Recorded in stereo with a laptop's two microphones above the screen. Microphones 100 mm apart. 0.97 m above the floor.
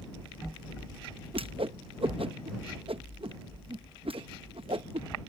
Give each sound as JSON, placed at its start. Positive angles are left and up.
{"t": 1.3, "sound": "a whoosh", "side_deg": -65}